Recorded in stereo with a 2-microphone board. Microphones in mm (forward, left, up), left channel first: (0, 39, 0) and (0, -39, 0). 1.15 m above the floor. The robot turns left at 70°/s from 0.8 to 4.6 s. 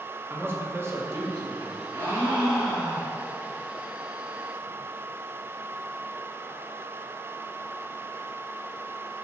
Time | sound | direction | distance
0.3 | a man speaking | 35° right | 1.4 m
1.9 | a gasp | 135° right | 2 m